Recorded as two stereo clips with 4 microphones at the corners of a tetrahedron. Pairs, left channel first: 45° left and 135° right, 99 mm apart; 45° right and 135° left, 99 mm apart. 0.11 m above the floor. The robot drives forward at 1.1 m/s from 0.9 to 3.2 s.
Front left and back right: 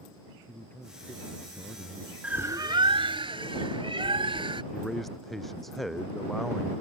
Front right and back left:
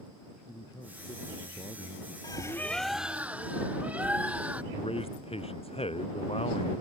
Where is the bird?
60° right; by 4.6 s 150° right.